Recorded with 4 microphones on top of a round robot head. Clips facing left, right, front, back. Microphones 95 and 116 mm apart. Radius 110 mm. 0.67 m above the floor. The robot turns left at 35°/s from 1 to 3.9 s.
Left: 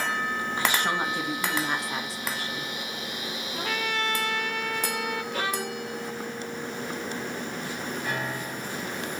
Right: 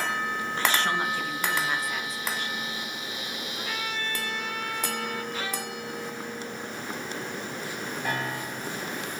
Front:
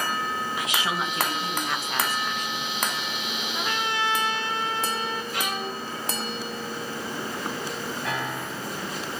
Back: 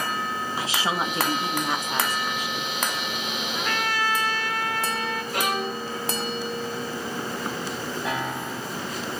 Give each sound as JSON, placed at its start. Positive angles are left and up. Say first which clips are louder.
{"t": 0.6, "sound": "a woman speaking", "louder": "right 1 dB, back 4 dB", "azimuth_deg": 155, "distance_m": 1.3}
{"t": 3.5, "sound": "a trumpet", "louder": "left 5 dB, back 1 dB", "azimuth_deg": 80, "distance_m": 1.2}
{"t": 5.3, "sound": "a violin", "louder": "left 4 dB, back 4 dB", "azimuth_deg": 140, "distance_m": 1.2}
{"t": 8.1, "sound": "a piano", "louder": "right 3 dB, back 2 dB", "azimuth_deg": -100, "distance_m": 2.5}